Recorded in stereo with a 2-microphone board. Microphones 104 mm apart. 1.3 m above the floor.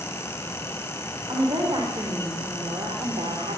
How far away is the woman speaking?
About 4.5 m.